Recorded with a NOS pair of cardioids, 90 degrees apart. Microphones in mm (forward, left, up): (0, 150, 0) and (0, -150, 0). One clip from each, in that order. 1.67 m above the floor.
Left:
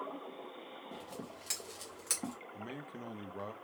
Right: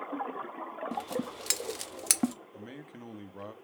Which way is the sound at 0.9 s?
50° right.